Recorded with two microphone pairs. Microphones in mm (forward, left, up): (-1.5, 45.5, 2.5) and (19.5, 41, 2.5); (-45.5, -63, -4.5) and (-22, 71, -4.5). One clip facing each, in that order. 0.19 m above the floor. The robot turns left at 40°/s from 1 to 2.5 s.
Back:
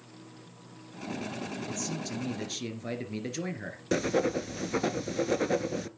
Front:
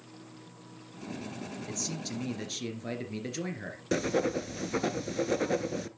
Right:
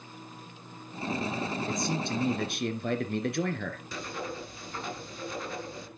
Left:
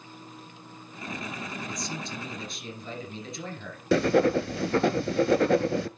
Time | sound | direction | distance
1.7 | a man speaking | 75° right | 2.5 m
3.9 | writing | 80° left | 0.6 m